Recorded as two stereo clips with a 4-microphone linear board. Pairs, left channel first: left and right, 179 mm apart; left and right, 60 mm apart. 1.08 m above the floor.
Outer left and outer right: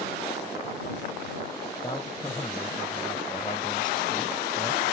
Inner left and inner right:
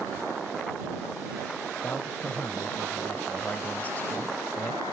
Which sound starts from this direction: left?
A man speaking, at 1.8 s.